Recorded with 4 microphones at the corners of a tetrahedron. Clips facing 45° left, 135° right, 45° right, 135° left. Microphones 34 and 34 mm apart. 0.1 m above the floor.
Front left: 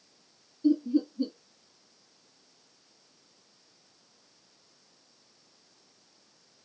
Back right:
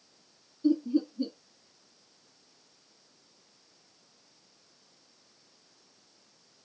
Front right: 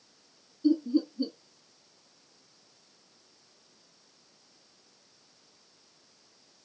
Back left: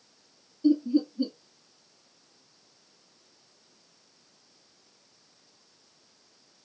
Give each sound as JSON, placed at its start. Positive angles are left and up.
{"t": 0.6, "sound": "laughter", "azimuth_deg": 140, "distance_m": 1.9}